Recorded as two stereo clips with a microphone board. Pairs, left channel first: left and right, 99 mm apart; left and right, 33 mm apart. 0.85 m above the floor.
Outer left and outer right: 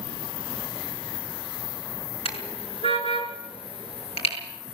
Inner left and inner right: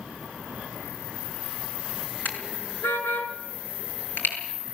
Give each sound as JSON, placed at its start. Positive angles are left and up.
{"t": 2.2, "sound": "a car horn", "side_deg": 80, "distance_m": 6.0}